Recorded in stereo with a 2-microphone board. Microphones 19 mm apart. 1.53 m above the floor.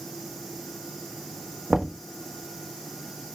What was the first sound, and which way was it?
Knocking, 35° right (ahead or behind).